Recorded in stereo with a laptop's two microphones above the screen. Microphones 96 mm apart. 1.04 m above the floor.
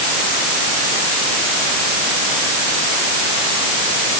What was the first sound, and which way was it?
Only background noise.